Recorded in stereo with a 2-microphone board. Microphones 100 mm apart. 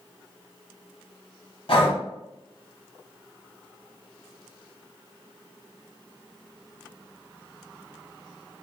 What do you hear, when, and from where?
1.7 s breathing: 60° left (ahead or behind), 1.0 m